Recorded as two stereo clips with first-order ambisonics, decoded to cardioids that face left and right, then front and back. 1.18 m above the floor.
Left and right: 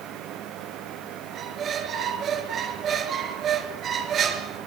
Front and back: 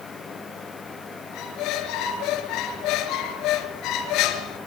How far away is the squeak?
About 3 m.